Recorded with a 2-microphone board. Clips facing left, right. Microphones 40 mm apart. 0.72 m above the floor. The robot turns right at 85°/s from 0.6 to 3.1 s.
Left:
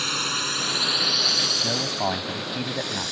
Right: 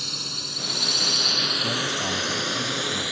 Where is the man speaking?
15° left; by 3.1 s 140° left.